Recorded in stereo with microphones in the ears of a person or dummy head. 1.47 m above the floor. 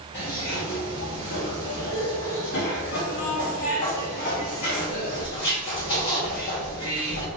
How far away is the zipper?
About 1.7 m.